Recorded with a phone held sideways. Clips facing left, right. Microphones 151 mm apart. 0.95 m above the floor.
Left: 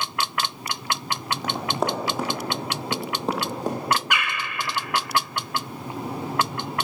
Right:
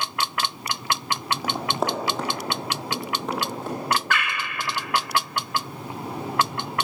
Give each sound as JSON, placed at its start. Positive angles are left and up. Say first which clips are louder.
{"t": 1.4, "sound": "running footsteps", "louder": "left 1 dB", "side_deg": -10, "distance_m": 1.8}
{"t": 4.1, "sound": "a bird", "louder": "right 1 dB", "side_deg": 15, "distance_m": 0.9}